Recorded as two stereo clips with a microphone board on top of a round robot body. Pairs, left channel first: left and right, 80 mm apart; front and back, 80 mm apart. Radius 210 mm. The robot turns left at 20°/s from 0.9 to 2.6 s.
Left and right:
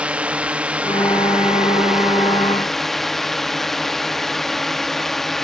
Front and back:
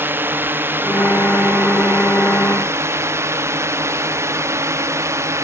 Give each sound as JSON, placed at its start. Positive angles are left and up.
{"t": 0.0, "sound": "a drone", "azimuth_deg": -150}